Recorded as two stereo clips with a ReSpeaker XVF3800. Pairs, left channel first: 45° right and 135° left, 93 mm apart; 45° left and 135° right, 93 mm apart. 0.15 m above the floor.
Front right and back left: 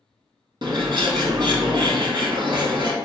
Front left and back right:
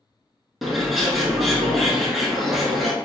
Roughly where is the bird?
Behind left.